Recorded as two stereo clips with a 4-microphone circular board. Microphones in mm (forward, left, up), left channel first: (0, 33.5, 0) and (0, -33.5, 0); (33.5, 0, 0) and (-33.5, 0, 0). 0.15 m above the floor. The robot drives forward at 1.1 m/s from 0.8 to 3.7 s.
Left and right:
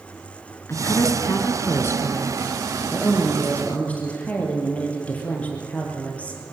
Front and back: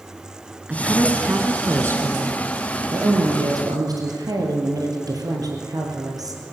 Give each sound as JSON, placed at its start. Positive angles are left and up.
{"t": 0.7, "sound": "a woman speaking", "azimuth_deg": 110, "distance_m": 2.5}